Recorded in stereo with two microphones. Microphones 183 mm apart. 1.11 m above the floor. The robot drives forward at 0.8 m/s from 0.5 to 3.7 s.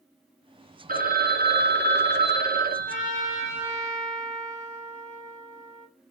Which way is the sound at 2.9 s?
50° right (ahead or behind).